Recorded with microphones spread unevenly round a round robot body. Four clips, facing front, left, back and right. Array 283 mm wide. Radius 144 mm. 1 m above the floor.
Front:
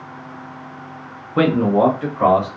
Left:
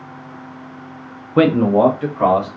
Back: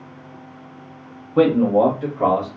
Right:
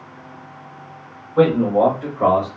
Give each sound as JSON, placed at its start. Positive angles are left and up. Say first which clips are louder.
{"t": 1.4, "sound": "a man speaking", "louder": "left 2 dB, even", "azimuth_deg": 95, "distance_m": 0.6}